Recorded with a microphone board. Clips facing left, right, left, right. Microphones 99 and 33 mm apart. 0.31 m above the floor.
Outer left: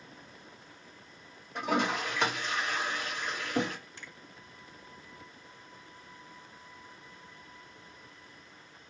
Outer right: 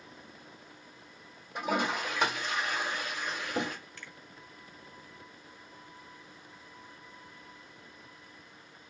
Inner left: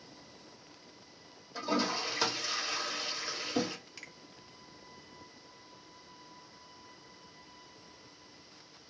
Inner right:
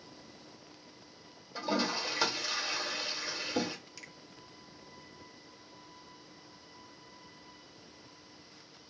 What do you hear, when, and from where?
1.6 s a toilet flushing: 10° right (ahead or behind), 1.5 m
4.0 s a finger snap: 20° left (ahead or behind), 0.8 m